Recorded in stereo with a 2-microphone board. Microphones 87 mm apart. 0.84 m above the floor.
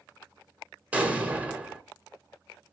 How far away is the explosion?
About 0.6 m.